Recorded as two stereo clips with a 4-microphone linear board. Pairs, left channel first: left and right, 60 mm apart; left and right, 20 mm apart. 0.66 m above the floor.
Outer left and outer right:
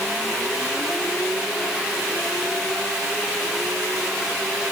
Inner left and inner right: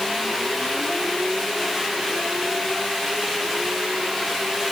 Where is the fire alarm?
No fire alarm in this recording.